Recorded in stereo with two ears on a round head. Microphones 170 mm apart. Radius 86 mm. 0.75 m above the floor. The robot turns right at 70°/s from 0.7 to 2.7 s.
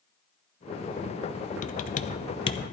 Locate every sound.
1.6 s typing on a keyboard: 40° left (ahead or behind), 0.5 m; by 2.6 s 20° left (ahead or behind), 0.5 m